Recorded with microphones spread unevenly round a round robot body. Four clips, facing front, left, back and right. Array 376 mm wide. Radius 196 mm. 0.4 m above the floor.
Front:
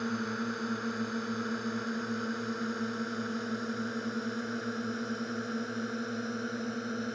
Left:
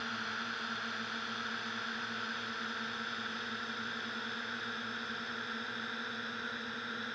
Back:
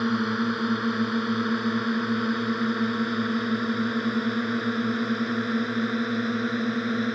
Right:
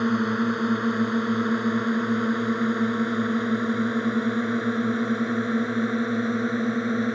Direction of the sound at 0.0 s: 115° right.